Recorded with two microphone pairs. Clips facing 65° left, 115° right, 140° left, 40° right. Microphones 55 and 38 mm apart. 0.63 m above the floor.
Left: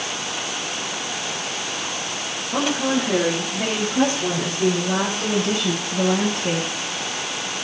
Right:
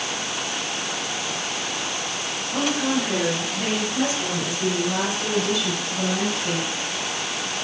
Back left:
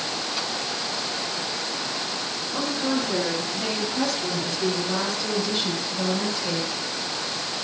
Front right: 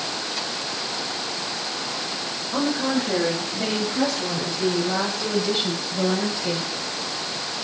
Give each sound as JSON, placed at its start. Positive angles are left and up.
{"t": 2.5, "sound": "a woman speaking", "azimuth_deg": 10, "distance_m": 8.0}